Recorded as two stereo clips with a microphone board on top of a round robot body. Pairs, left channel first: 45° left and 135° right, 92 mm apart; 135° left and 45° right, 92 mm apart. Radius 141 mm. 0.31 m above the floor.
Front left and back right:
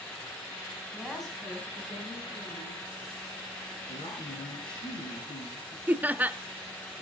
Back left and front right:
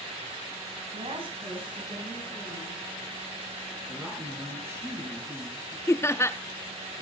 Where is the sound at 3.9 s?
20° left, 5.5 m.